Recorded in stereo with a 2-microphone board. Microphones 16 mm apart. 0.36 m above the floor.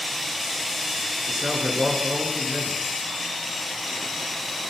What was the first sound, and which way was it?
A man speaking, 75° right (ahead or behind).